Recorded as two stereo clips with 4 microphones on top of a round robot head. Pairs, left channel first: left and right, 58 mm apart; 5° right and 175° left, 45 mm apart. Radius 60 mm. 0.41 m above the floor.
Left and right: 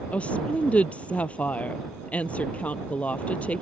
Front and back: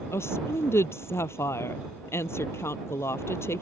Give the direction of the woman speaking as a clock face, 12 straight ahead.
11 o'clock.